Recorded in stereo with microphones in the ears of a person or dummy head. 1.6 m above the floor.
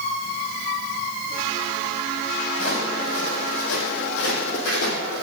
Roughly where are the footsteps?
Left.